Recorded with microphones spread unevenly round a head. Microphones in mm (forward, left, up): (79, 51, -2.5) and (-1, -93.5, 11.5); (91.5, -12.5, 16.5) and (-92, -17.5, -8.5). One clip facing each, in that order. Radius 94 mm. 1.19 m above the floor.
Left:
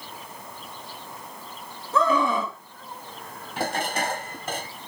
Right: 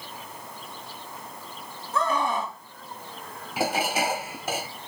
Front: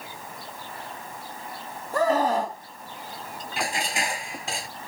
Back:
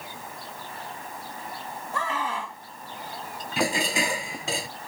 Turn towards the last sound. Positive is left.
turn(degrees=160)